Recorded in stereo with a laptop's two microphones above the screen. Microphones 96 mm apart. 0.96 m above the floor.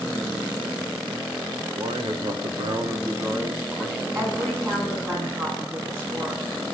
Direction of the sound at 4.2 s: 35° right (ahead or behind).